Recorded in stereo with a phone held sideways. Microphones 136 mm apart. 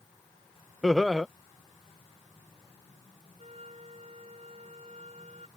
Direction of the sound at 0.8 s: Centre (ahead or behind).